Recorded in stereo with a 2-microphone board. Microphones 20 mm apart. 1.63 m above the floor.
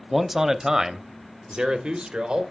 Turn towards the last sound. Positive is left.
turn(degrees=-65)  # may be behind; listen again after turning